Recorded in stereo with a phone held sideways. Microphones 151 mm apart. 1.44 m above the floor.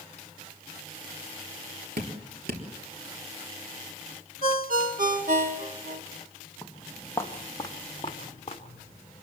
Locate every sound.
2.0 s dripping: 85° right, 3.5 m
4.4 s a ringtone: 65° right (ahead or behind), 2.0 m
6.6 s footsteps: 5° left (ahead or behind), 2.5 m; by 9.2 s 40° left (ahead or behind), 4 m